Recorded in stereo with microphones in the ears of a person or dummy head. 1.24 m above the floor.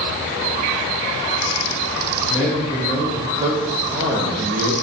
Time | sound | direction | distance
2.3 | a man speaking | 5° right (ahead or behind) | 2.5 m